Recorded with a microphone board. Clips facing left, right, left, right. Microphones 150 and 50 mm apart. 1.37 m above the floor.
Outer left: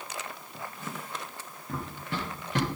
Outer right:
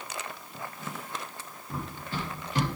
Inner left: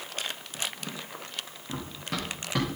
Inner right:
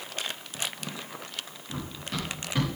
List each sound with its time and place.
1.7 s running footsteps: 70° left (ahead or behind), 4 m